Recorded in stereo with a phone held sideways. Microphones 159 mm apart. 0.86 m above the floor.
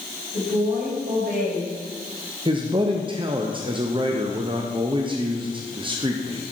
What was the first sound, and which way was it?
A woman speaking, 75° right (ahead or behind).